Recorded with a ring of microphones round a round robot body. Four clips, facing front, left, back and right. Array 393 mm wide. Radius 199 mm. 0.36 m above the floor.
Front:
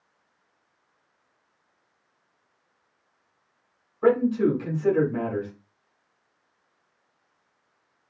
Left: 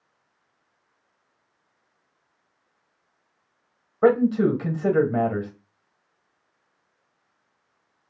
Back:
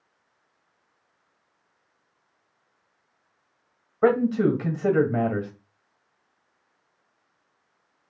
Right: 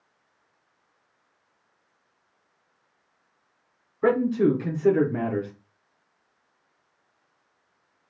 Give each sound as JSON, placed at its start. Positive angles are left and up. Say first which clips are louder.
{"t": 4.0, "sound": "a man speaking", "louder": "left 3 dB, even", "azimuth_deg": 130, "distance_m": 1.6}